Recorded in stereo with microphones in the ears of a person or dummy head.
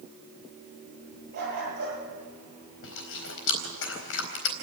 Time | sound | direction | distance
1.3 | a dog barking | 55° right (ahead or behind) | 9.5 m
2.8 | chewing | 70° left (ahead or behind) | 4 m